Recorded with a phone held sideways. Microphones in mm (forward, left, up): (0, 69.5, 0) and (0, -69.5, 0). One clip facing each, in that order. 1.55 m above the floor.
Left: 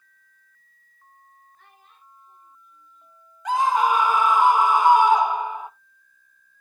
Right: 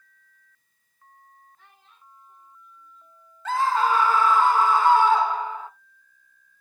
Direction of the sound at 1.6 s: 55° left (ahead or behind).